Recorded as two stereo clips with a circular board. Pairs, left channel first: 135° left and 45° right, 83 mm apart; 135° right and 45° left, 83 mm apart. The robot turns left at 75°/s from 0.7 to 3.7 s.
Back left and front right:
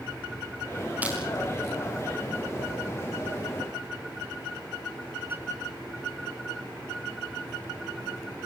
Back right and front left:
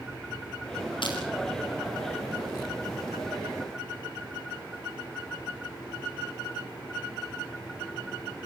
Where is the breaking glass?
115° right, 7 m; by 1.2 s 125° right, 7 m.